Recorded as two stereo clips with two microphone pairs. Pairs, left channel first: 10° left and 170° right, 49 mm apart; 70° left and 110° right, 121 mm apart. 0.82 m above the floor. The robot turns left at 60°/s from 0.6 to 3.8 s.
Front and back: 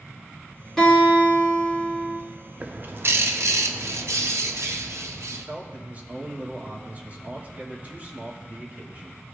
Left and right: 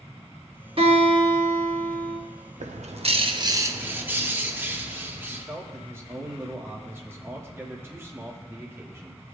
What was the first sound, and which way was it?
A guitar, 70° right.